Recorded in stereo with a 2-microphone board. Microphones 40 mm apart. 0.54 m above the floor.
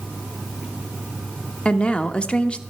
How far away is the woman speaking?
About 0.8 m.